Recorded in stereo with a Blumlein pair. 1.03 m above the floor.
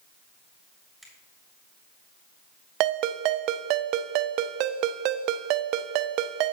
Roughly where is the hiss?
No hiss in this recording.